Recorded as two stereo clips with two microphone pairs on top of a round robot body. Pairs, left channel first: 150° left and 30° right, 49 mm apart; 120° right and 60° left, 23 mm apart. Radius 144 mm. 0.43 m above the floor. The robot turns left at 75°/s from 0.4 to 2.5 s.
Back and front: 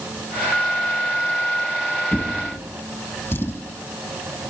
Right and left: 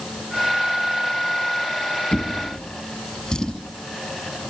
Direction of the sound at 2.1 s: 145° right.